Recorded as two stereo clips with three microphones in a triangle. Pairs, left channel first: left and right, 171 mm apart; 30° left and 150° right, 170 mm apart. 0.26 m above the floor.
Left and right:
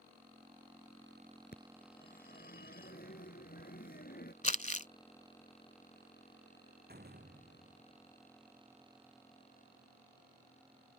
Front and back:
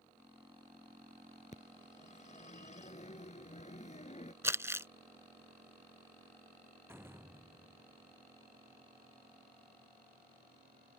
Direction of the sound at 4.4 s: 135° left.